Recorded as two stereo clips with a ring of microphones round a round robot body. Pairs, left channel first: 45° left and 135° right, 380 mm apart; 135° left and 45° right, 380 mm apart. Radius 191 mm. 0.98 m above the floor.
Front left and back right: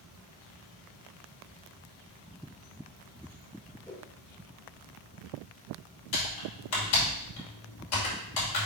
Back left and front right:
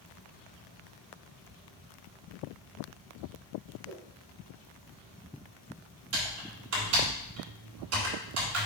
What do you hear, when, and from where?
3.9 s a whoosh: 30° right, 1.5 m
6.1 s typing on a keyboard: 10° left, 3 m